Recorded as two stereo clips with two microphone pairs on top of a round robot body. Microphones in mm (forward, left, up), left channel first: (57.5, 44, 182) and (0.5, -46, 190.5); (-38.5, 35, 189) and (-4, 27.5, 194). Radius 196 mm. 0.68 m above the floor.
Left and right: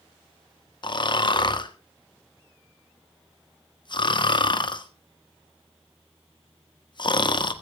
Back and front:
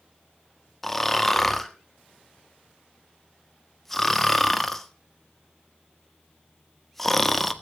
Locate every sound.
0.8 s snoring: 90° left, 1.7 m